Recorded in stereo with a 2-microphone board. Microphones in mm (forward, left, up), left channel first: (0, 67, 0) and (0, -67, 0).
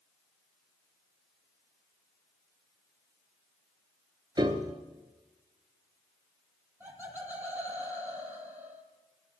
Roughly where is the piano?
Right.